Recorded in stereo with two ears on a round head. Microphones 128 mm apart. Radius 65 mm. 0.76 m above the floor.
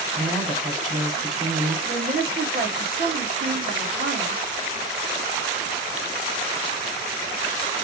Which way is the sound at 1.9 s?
65° right (ahead or behind).